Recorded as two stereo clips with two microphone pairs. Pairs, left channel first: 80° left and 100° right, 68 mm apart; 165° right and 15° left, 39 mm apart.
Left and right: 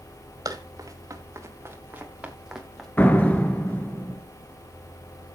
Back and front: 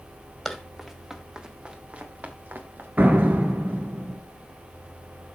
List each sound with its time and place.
0.5 s running footsteps: 70° right, 3 m; by 2.9 s 10° right, 2.5 m
3.0 s a door slam: 25° left, 1.2 m